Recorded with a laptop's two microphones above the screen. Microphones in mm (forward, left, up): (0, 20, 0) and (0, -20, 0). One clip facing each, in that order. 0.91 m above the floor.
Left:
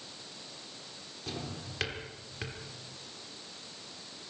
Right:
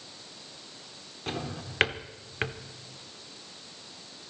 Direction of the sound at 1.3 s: 45° right (ahead or behind).